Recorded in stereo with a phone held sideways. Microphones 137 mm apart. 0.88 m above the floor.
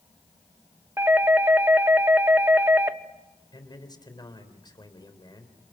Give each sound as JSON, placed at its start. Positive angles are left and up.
{"t": 1.0, "sound": "a doorbell", "side_deg": -15, "distance_m": 1.0}
{"t": 3.5, "sound": "a man speaking", "side_deg": 30, "distance_m": 3.5}